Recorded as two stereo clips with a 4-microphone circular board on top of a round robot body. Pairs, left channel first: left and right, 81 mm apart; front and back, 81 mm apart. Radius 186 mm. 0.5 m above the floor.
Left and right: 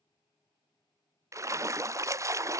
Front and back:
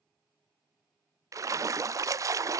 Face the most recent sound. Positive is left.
turn(degrees=-135)